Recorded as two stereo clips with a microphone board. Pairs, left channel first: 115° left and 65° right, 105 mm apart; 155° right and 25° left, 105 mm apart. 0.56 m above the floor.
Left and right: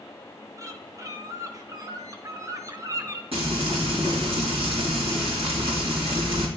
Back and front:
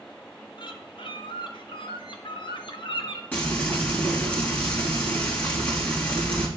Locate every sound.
0.6 s a bird: 125° right, 1.0 m
3.3 s frying: 85° right, 3 m